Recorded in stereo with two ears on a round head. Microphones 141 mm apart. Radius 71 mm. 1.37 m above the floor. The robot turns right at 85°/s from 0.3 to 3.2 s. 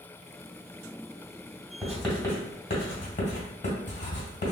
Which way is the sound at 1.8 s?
10° right (ahead or behind).